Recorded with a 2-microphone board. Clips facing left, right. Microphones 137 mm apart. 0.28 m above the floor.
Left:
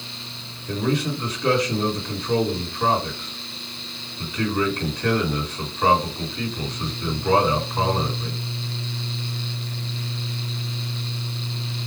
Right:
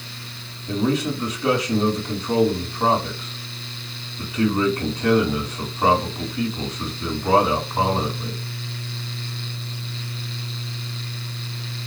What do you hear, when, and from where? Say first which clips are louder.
0.7 s a man speaking: right 2 dB; 20° right (ahead or behind), 1.9 m